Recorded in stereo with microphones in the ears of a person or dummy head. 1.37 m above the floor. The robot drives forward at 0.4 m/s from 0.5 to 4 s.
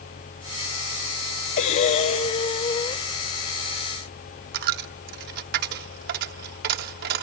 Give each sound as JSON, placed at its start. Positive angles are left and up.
{"t": 1.6, "sound": "breathing", "side_deg": 45, "distance_m": 0.8}
{"t": 4.5, "sound": "a dropped coin", "side_deg": -55, "distance_m": 1.4}